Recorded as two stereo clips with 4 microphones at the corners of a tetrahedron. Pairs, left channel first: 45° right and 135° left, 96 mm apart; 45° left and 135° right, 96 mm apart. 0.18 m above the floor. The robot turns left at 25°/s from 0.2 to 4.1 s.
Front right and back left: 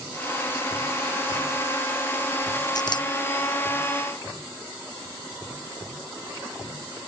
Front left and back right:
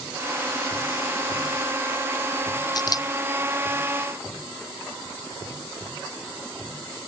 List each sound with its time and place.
2.8 s a camera shutter: straight ahead; by 3.1 s 10° right